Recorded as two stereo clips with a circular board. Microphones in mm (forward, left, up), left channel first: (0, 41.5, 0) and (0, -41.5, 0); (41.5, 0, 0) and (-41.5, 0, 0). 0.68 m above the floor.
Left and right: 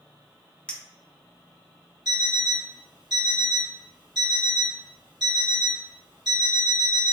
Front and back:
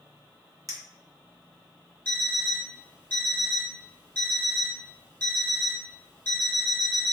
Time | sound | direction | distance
0.7 | a clink | 160° left | 0.6 m
2.0 | an alarm clock | 65° right | 1.8 m